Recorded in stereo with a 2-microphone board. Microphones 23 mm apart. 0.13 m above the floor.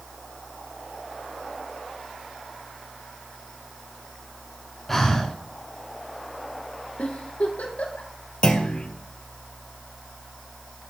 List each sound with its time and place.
4.9 s breathing: 10° left (ahead or behind), 3 m
7.0 s a giggle: 75° left (ahead or behind), 4 m
8.4 s a clunk: 40° left (ahead or behind), 2.5 m